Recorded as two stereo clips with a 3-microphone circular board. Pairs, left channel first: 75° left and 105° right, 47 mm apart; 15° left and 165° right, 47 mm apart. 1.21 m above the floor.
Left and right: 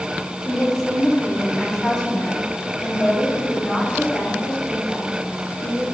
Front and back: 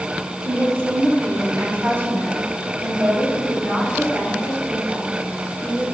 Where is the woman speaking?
160° left, 3 m.